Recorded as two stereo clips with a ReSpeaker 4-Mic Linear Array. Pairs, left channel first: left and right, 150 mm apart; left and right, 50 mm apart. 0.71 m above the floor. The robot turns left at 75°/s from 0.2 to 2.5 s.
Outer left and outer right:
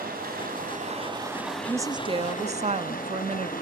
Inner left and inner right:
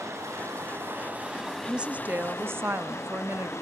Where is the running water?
80° right, 3.5 m; by 3.6 s 110° left, 3.5 m.